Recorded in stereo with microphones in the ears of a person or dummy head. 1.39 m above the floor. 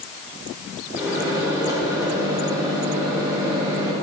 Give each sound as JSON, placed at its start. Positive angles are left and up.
{"t": 0.9, "sound": "a microwave", "side_deg": -15, "distance_m": 1.5}